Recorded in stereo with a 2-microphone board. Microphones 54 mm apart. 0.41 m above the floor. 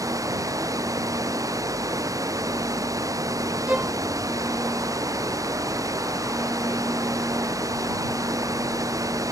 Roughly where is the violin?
Right.